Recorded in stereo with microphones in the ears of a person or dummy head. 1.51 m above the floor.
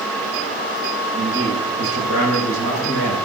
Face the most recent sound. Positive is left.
turn(degrees=-90)